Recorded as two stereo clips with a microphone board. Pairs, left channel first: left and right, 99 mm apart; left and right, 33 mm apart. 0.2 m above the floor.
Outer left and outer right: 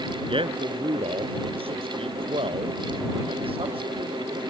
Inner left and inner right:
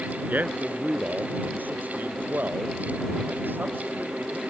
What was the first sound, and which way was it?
A man speaking, 65° right (ahead or behind).